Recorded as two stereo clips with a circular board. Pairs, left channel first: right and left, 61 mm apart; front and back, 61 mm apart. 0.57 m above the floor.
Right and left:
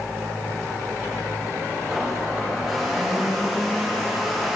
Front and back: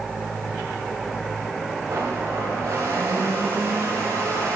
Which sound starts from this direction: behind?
A blender, at 1.9 s.